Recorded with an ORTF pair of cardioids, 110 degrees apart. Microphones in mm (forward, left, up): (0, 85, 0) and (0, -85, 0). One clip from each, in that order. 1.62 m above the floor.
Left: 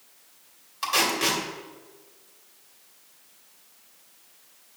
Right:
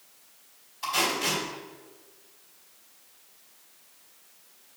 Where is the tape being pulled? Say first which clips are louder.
Left 3 dB; 65° left, 2.5 m.